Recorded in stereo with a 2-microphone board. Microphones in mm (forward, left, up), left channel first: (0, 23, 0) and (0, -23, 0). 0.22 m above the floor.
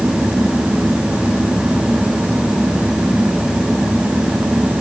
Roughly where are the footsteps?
I don't hear footsteps.